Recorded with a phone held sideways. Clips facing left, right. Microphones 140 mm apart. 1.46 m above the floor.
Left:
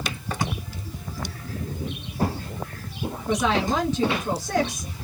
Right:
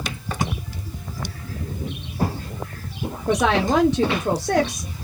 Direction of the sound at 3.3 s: 75° right (ahead or behind).